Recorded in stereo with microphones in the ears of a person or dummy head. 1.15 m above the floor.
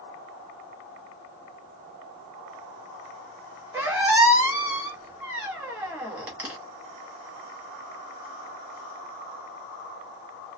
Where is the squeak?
10° right (ahead or behind), 0.6 m.